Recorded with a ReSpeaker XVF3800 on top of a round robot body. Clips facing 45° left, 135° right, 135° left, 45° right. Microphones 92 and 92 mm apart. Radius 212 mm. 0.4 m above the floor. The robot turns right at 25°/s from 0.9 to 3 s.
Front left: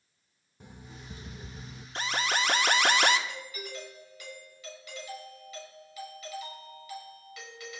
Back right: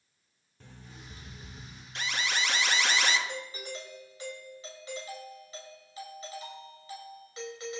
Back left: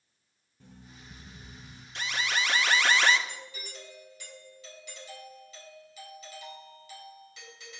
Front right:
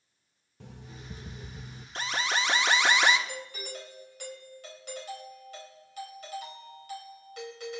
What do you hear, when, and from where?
0.6 s an alarm clock: 30° right, 1.1 m; by 1.9 s 5° right, 1.1 m
1.9 s an alarm: straight ahead, 1.3 m; by 3.2 s 25° left, 1.3 m
3.3 s a doorbell: 75° right, 5 m